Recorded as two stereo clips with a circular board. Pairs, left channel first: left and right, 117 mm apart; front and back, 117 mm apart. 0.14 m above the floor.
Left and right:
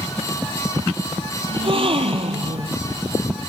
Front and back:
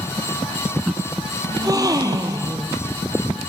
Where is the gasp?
125° right, 1.5 m.